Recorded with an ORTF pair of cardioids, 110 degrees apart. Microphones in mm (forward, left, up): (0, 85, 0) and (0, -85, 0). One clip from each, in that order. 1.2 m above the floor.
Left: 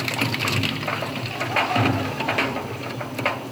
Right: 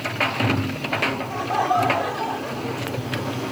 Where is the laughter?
35° right.